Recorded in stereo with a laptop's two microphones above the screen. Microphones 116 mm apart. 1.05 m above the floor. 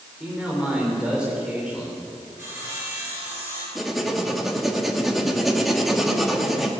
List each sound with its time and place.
0.2 s a man speaking: 5° right (ahead or behind), 4 m
2.4 s sawing: 20° right (ahead or behind), 7.5 m
3.8 s writing: centre (ahead or behind), 2 m